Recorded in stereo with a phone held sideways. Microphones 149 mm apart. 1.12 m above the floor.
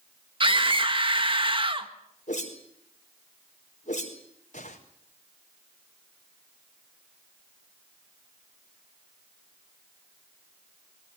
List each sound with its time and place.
0.4 s a scream: 35° right (ahead or behind), 1.7 m
2.3 s a whoosh: 55° left (ahead or behind), 4.5 m